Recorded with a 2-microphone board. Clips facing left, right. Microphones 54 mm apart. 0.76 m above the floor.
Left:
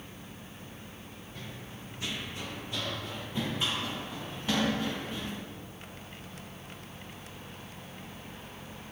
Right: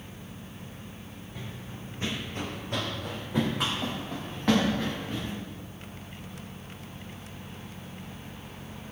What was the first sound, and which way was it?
Running footsteps, 10° right (ahead or behind).